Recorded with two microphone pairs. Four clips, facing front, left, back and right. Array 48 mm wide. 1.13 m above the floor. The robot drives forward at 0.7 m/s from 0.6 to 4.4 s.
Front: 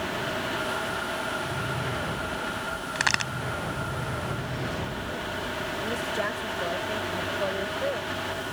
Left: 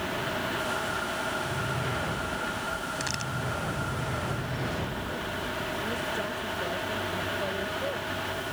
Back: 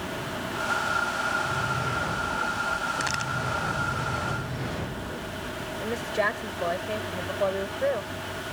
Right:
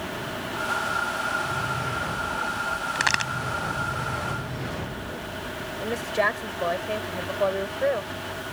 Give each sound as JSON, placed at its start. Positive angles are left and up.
{"t": 3.0, "sound": "a crack", "azimuth_deg": -55}
{"t": 5.8, "sound": "a woman speaking", "azimuth_deg": -115}